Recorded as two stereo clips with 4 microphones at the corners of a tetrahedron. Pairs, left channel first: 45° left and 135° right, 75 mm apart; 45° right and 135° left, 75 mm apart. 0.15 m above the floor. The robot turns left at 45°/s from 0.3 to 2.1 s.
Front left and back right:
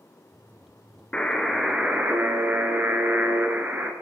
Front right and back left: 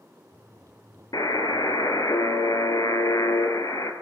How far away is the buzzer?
About 1.4 m.